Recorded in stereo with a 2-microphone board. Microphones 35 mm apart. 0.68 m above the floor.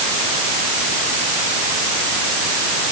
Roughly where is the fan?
I don't hear a fan.